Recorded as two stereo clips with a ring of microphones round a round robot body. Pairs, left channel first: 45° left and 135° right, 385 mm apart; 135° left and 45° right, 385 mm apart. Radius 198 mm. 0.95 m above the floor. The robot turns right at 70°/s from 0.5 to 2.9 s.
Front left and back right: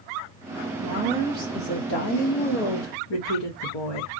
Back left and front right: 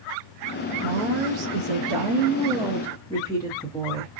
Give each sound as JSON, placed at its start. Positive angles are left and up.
{"t": 0.8, "sound": "a woman speaking", "azimuth_deg": -90, "distance_m": 1.0}